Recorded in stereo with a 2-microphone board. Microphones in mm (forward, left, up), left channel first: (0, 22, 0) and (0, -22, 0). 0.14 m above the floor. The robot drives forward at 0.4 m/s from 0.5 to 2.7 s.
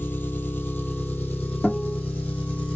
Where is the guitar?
10° left (ahead or behind), 1.5 m.